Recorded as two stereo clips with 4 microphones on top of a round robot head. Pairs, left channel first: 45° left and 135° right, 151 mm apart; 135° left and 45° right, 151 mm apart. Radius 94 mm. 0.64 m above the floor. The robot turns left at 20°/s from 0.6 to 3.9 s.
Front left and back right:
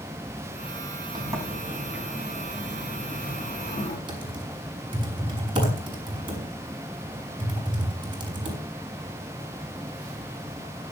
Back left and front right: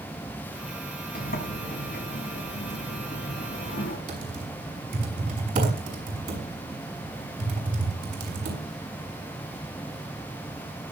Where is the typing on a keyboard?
75° right, 6 m.